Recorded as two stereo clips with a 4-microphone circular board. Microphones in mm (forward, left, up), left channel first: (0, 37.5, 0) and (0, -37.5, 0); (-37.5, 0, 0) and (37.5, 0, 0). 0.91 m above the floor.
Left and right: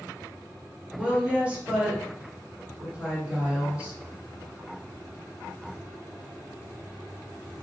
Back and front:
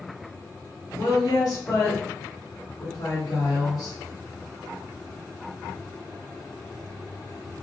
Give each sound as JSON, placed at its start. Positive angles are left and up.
{"t": 0.9, "sound": "a woman speaking", "azimuth_deg": -165, "distance_m": 2.0}